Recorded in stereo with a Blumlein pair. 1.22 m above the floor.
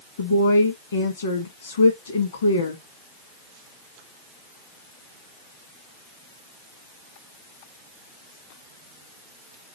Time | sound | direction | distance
0.2 | a woman speaking | 70° left | 1.3 m